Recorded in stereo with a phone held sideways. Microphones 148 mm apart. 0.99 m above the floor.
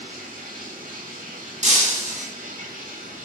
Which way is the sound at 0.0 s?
65° right (ahead or behind).